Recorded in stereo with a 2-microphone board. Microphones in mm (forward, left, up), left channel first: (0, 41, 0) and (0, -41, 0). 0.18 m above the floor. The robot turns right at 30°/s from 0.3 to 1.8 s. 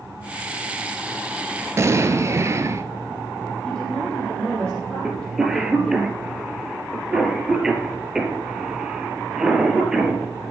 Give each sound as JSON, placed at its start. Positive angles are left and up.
{"t": 1.8, "sound": "an explosion", "side_deg": -35, "distance_m": 0.9}
{"t": 3.6, "sound": "a woman speaking", "side_deg": 10, "distance_m": 5.0}
{"t": 5.0, "sound": "a cough", "side_deg": -5, "distance_m": 4.0}